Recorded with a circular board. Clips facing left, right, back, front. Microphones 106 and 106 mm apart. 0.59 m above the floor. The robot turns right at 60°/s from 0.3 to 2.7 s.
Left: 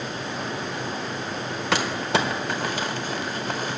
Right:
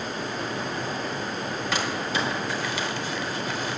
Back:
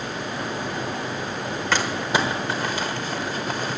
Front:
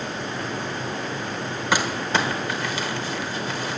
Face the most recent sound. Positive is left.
turn(degrees=135)